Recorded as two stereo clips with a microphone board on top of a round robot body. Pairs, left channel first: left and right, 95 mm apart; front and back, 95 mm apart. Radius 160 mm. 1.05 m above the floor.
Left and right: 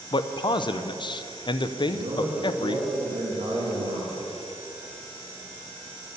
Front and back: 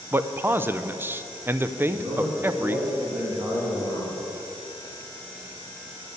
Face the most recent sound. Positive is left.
turn(degrees=-115)